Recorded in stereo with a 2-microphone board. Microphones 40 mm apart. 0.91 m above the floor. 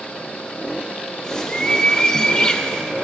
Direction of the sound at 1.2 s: 20° left (ahead or behind).